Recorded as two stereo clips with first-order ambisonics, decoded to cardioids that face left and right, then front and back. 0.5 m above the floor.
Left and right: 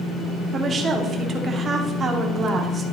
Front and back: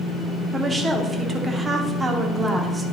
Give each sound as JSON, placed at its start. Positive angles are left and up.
{"t": 0.5, "sound": "a woman speaking", "azimuth_deg": -120, "distance_m": 0.8}